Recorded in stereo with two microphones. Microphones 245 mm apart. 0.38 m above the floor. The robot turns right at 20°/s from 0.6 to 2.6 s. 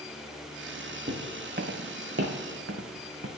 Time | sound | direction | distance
1.1 | footsteps | 35° right (ahead or behind) | 1.0 m